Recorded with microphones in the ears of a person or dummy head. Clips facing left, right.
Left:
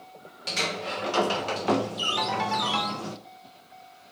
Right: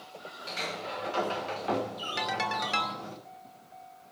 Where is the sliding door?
70° left (ahead or behind), 1.1 m.